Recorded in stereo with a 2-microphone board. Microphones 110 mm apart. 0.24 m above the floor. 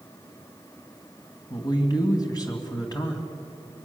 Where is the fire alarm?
I don't hear a fire alarm.